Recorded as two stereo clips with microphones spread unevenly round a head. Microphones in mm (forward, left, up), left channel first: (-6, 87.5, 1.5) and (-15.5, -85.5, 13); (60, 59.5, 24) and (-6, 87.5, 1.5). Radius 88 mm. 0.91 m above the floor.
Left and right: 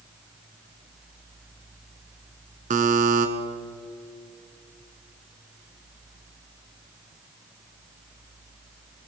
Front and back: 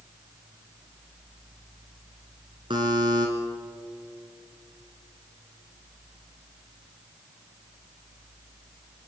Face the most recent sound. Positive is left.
turn(degrees=-135)